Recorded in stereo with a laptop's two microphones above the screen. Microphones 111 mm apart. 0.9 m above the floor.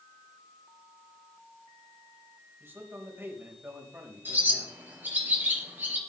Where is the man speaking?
20° right (ahead or behind), 3.5 m.